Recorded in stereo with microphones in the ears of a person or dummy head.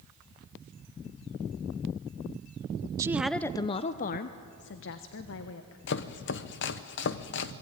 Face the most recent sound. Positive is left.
turn(degrees=60)  # may be behind; listen again after turning